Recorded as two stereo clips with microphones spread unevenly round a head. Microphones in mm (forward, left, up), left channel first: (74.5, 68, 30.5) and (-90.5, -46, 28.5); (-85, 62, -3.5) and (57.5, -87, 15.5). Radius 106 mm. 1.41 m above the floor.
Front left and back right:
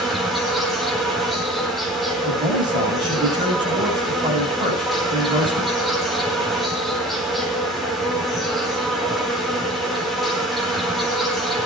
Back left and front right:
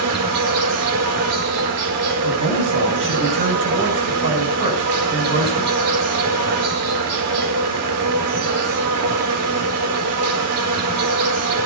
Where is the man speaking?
75° right, 9 m.